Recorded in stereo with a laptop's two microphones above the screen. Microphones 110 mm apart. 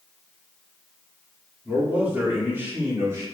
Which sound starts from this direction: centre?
A man speaking, at 1.6 s.